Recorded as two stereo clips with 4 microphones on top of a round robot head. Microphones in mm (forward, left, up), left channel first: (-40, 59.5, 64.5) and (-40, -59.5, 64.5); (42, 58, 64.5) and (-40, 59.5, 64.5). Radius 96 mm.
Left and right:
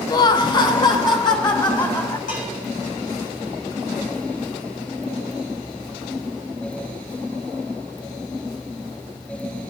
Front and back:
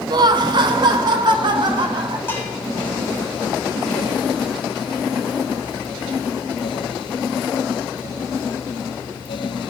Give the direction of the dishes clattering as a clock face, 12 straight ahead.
10 o'clock.